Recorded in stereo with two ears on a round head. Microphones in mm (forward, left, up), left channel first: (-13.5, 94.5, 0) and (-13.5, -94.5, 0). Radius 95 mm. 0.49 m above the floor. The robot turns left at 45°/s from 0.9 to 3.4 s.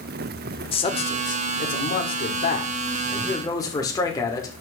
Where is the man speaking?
140° left, 1.8 m; by 4.6 s 25° left, 1.8 m.